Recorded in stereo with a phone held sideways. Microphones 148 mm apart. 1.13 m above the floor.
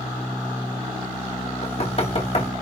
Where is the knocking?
45° left (ahead or behind), 3.5 m.